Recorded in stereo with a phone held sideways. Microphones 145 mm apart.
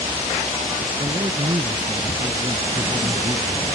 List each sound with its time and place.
1.0 s a man speaking: 35° right (ahead or behind)